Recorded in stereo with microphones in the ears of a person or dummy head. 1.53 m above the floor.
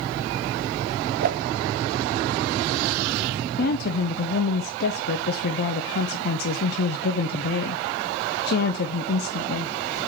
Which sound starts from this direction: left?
A woman speaking, at 3.6 s.